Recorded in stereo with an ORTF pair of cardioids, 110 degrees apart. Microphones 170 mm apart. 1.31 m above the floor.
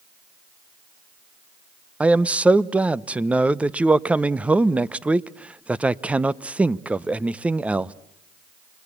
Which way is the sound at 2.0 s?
10° right.